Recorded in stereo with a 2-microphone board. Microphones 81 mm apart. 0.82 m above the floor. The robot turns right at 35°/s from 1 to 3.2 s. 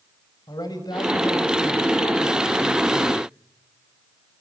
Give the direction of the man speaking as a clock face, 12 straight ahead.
10 o'clock.